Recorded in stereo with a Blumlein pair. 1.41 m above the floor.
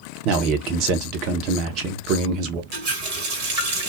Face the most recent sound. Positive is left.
turn(degrees=-45)